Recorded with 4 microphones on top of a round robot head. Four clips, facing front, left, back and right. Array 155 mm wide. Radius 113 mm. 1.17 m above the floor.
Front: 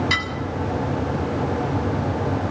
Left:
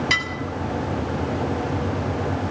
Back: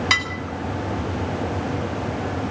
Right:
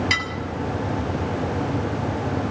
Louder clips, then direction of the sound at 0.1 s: Left 1 dB, back 1 dB; straight behind.